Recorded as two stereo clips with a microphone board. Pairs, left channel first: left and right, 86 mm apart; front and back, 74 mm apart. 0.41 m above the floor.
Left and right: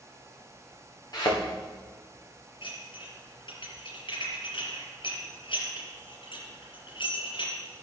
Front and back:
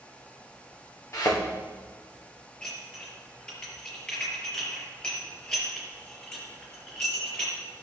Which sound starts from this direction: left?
Dishes clattering, at 2.6 s.